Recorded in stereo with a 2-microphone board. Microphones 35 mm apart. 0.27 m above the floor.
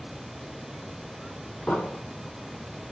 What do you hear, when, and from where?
1.7 s an explosion: 75° left (ahead or behind), 2.5 m